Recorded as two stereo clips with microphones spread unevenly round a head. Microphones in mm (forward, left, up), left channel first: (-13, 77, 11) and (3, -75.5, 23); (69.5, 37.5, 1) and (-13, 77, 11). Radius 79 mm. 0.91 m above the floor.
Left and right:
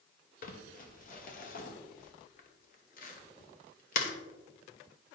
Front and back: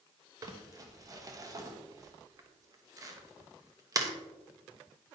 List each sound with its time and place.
0.4 s crumpling: 105° left, 1.1 m